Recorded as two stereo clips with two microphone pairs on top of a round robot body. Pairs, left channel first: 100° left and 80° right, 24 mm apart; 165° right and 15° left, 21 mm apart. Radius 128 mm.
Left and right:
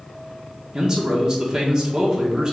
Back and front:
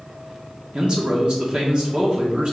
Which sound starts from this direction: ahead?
A man speaking, at 0.7 s.